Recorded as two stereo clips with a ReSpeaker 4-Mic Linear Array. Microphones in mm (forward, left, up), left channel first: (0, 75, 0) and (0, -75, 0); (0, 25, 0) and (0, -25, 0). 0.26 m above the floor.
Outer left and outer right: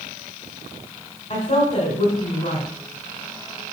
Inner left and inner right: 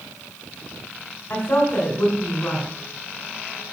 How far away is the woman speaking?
About 2 m.